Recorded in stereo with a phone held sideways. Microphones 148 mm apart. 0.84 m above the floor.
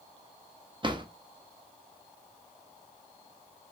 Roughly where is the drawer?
Right.